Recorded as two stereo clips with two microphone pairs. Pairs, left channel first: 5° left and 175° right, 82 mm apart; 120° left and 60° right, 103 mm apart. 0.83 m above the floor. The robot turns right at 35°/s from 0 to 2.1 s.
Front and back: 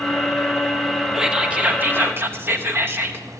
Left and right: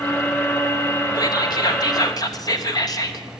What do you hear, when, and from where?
1.1 s whispering: 105° left, 0.9 m; by 3.2 s 140° left, 0.9 m